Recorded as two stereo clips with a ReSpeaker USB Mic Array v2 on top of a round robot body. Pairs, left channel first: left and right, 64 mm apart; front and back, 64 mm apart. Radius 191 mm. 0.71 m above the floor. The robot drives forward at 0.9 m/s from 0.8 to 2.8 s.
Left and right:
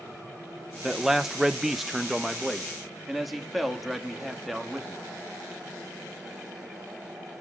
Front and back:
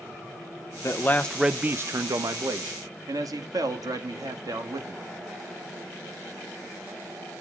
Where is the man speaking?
5° right, 0.8 m; by 5.0 s straight behind, 1.4 m.